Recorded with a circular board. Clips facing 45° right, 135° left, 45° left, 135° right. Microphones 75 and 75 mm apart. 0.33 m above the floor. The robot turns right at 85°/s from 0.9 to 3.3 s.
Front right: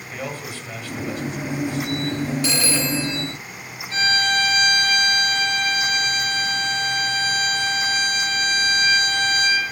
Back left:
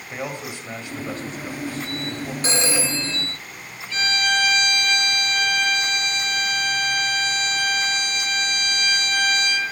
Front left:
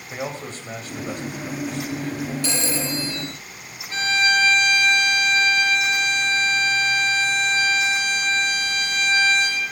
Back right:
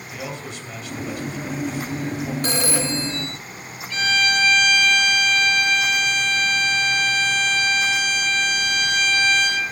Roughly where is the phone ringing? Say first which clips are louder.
Front right 1 dB, back right 2 dB; behind.